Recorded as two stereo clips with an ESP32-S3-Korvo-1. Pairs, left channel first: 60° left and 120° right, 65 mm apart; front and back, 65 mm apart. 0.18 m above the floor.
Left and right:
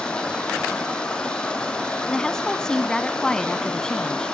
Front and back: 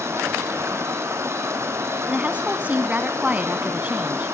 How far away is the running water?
About 3 m.